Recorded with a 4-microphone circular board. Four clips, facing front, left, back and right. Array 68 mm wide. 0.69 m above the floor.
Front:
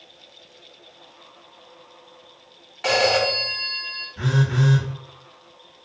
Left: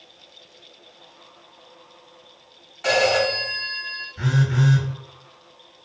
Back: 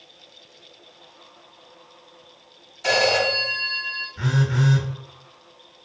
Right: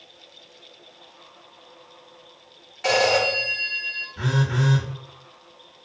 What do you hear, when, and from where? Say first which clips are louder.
2.8 s a phone ringing: left 1 dB, even; 5° right, 1.5 m
4.2 s a phone buzzing: left 2 dB, front 1 dB; 60° right, 1.5 m